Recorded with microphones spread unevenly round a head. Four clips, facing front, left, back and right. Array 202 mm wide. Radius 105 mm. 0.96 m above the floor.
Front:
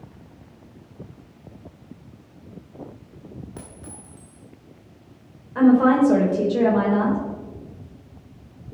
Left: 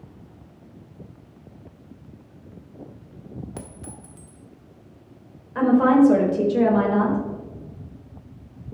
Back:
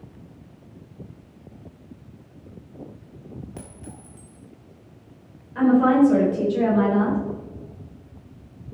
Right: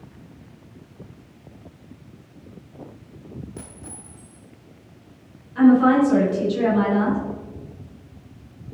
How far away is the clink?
About 2 m.